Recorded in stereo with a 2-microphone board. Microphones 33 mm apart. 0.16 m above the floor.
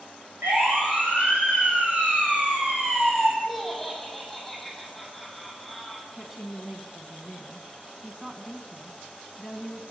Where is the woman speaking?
10° right (ahead or behind), 1.1 m.